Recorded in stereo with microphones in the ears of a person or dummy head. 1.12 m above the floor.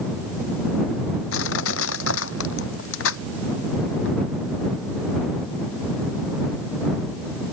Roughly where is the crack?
No crack in this recording.